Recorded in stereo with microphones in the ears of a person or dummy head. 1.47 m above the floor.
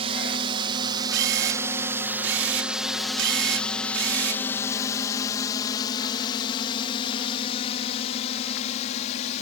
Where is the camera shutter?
75° right (ahead or behind).